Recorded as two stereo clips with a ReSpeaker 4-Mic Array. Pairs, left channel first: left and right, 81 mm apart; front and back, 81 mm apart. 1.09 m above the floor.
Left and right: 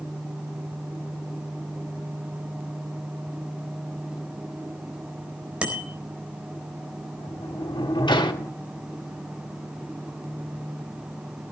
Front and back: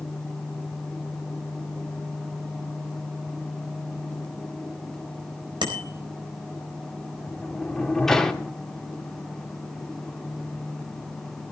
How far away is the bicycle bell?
About 4 m.